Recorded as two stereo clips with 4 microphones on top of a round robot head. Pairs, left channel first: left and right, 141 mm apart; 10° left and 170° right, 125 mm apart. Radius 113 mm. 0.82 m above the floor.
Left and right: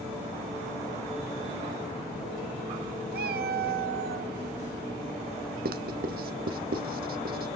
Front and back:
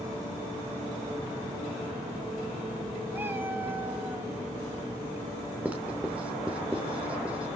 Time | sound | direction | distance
3.1 | a cat meowing | 90° right | 0.6 m
5.7 | writing | 85° right | 0.7 m